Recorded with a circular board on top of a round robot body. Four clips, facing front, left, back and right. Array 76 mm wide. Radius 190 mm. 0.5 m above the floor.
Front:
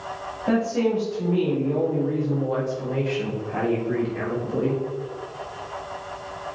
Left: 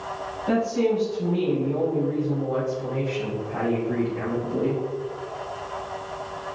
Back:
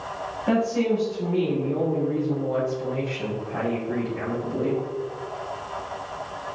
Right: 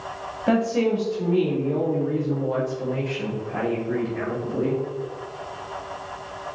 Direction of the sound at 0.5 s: 85° right.